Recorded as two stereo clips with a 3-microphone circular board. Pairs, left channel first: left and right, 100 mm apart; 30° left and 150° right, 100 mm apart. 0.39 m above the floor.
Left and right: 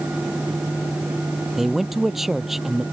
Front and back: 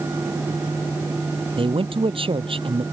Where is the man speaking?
Straight behind.